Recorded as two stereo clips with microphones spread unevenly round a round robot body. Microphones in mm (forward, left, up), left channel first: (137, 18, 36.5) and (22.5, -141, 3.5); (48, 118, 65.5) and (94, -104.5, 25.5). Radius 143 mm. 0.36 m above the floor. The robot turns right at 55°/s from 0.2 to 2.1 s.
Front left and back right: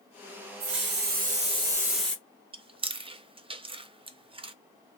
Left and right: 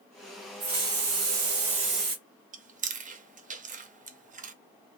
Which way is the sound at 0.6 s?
115° right.